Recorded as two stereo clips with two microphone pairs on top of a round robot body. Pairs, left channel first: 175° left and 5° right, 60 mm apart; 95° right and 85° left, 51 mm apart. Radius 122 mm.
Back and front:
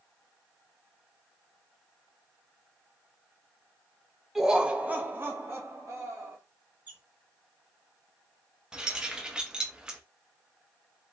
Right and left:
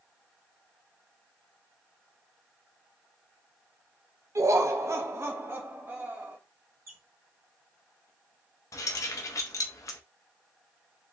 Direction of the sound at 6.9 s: 60° left.